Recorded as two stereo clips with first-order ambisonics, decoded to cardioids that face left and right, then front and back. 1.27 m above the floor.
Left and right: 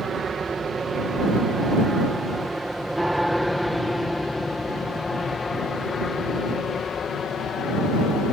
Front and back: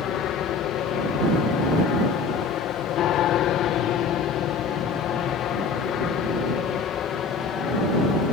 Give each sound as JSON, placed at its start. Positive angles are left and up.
{"t": 0.0, "sound": "an aircraft", "azimuth_deg": -25}